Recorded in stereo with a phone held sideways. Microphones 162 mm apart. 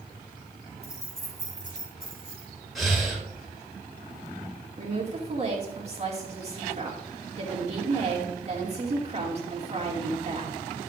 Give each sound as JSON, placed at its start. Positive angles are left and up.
{"t": 0.8, "sound": "keys jangling", "side_deg": 40, "distance_m": 2.0}
{"t": 2.8, "sound": "breathing", "side_deg": 0, "distance_m": 1.9}
{"t": 4.8, "sound": "a woman speaking", "side_deg": -40, "distance_m": 2.0}